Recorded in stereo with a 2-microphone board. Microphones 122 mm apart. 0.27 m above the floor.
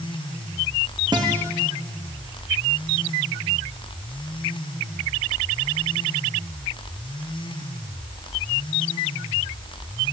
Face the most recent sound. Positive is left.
turn(degrees=-40)  # may be behind; listen again after turning